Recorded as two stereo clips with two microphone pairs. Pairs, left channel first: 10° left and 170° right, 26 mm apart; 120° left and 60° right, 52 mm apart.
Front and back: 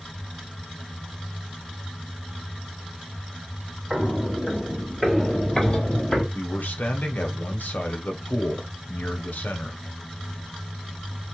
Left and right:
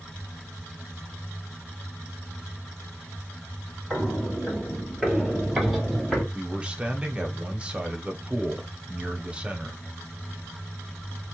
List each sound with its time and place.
3.9 s footsteps: 130° right, 1.8 m; by 6.2 s 30° left, 1.7 m
6.3 s a man speaking: 10° left, 0.8 m